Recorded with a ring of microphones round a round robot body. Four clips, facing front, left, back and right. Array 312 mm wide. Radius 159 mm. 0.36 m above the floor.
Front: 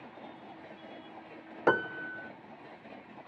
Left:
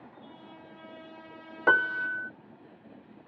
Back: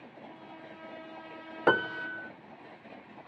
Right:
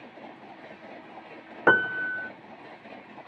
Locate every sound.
1.7 s a piano: 100° right